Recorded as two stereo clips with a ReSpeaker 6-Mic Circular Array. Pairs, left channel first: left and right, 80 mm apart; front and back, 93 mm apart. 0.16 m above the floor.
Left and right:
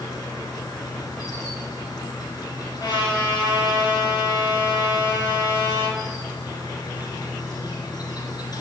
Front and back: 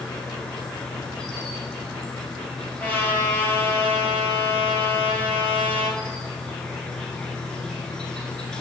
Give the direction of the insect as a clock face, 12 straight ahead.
9 o'clock.